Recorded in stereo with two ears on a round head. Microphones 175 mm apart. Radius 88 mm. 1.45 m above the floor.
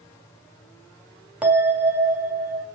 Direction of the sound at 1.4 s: 5° right (ahead or behind).